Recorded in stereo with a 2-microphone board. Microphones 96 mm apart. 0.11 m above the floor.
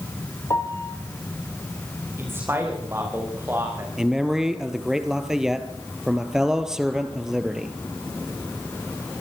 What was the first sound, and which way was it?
A piano, 35° left (ahead or behind).